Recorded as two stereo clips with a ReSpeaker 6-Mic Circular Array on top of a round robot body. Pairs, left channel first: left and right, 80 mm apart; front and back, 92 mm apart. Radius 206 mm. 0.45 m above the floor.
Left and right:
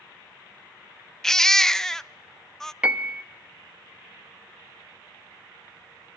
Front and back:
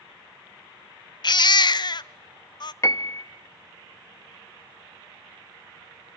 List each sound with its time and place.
1.2 s a baby crying: 5° left, 0.5 m
2.8 s a piano: 25° right, 1.2 m